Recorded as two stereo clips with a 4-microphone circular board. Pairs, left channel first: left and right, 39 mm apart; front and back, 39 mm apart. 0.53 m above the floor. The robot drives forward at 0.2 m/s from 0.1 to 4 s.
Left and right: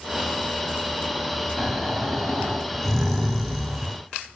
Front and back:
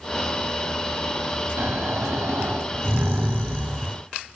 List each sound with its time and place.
1.6 s snoring: straight behind, 1.1 m